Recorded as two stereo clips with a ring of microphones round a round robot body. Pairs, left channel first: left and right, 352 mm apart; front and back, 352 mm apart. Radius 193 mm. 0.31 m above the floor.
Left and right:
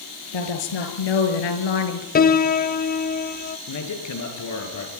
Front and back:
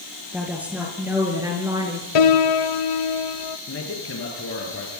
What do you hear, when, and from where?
0.3 s a woman speaking: 95° left, 5.5 m; by 2.0 s 100° left, 4 m
2.1 s a piano: 25° left, 1.3 m
3.7 s a man speaking: 55° left, 6 m